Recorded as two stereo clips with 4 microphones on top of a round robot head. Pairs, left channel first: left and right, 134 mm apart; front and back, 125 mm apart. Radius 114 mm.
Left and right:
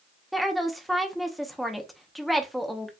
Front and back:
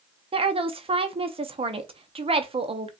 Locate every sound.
0.3 s a woman speaking: straight behind, 0.8 m